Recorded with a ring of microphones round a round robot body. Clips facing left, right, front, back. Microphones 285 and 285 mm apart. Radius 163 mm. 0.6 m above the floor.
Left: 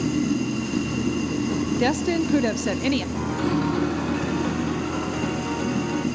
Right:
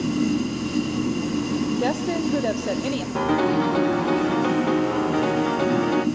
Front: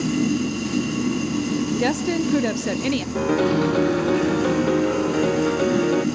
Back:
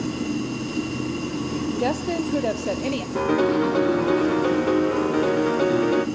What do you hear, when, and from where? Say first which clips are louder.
0.0 s running water: right 1 dB, front 5 dB; 20° left, 9 m
1.8 s a woman speaking: left 1 dB, front 3 dB; 50° left, 1.0 m
3.1 s a piano: right 3 dB, back 1 dB; 90° right, 2 m